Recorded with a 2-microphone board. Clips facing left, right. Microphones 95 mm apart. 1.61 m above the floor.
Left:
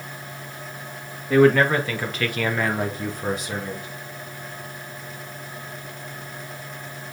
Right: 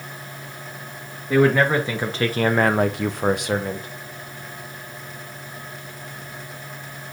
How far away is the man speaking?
About 1.9 m.